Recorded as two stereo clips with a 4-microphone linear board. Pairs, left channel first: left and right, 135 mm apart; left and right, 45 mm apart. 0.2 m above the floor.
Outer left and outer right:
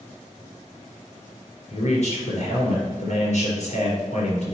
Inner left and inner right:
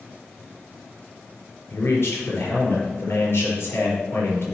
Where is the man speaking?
55° left (ahead or behind), 4 m.